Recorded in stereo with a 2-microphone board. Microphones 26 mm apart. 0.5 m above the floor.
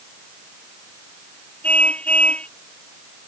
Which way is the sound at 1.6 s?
50° left (ahead or behind).